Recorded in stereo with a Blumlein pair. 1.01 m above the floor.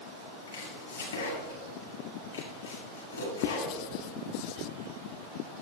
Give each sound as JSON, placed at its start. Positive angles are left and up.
{"t": 0.5, "sound": "chopping", "azimuth_deg": 70, "distance_m": 7.5}
{"t": 3.4, "sound": "writing", "azimuth_deg": 40, "distance_m": 0.5}